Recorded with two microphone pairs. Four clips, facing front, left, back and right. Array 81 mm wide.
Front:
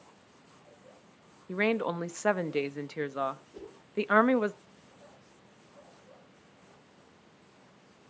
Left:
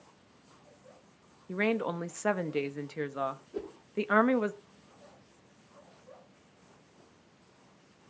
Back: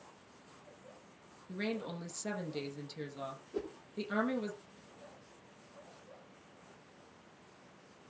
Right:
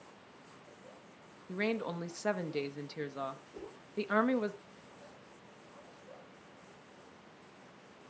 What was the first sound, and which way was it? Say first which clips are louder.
A woman speaking: left 5 dB, front 10 dB; 25° left.